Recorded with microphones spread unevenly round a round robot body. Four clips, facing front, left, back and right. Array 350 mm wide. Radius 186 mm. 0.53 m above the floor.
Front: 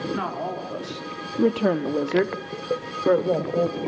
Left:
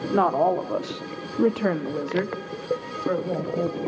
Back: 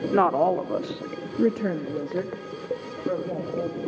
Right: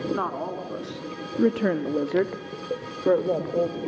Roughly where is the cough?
I don't hear a cough.